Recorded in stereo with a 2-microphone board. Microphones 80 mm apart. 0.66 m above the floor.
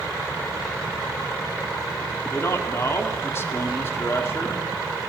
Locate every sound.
2.3 s a man speaking: 30° left (ahead or behind), 1.3 m